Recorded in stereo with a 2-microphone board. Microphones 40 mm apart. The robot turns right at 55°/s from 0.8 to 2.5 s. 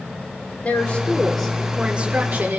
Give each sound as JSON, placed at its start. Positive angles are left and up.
{"t": 0.6, "sound": "a woman speaking", "azimuth_deg": 140, "distance_m": 5.5}